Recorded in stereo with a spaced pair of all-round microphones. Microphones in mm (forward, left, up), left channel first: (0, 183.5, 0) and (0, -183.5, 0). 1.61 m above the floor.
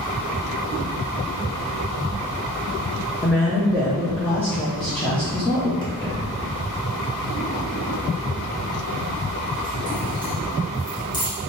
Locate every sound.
3.2 s a woman speaking: 5° left (ahead or behind), 0.7 m
5.8 s keys jangling: 10° left (ahead or behind), 1.2 m